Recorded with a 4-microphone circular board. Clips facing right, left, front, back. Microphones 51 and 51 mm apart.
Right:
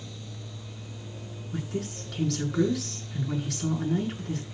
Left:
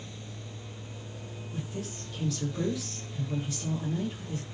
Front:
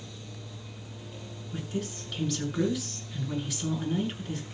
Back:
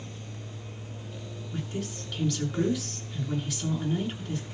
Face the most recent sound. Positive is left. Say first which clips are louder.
# right 5 dB, front 1 dB
turn(degrees=-90)